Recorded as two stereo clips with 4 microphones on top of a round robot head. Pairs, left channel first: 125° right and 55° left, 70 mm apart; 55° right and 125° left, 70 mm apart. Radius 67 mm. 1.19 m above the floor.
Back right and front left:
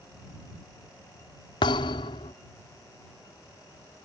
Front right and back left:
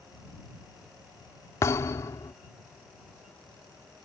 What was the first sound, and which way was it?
A thud, 110° right.